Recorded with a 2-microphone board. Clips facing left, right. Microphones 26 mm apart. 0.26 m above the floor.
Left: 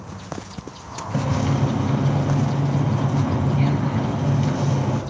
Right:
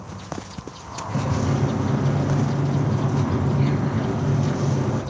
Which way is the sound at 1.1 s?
40° left (ahead or behind).